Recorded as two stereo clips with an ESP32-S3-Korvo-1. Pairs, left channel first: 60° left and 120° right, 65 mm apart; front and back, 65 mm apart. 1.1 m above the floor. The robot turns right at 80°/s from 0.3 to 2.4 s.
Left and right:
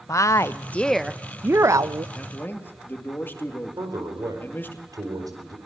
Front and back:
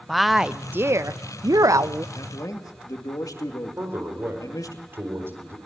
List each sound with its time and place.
0.1 s a woman speaking: 90° left, 0.6 m; by 2.0 s 130° right, 0.6 m
2.1 s a man speaking: 15° right, 2.5 m; by 4.8 s 5° left, 2.5 m
3.8 s a man speaking: 130° right, 4.5 m